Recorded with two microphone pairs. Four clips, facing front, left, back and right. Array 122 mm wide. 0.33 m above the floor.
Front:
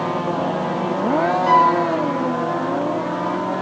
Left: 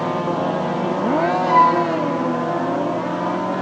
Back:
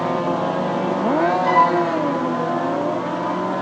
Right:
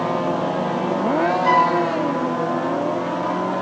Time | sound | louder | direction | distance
1.4 | a flute | left 4 dB, front 3 dB | 95° right | 1.6 m